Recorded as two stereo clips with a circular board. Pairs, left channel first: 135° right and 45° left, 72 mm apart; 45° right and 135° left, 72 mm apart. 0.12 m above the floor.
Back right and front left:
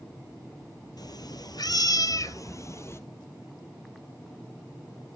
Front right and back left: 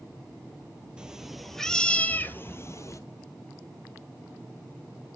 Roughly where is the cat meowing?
Behind right.